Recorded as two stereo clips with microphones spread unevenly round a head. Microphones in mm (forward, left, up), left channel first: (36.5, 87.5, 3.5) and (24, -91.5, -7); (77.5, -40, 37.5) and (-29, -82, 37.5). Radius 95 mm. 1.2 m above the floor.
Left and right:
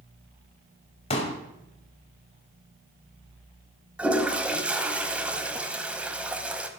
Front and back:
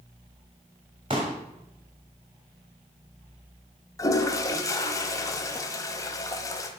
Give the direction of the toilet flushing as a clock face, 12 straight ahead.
12 o'clock.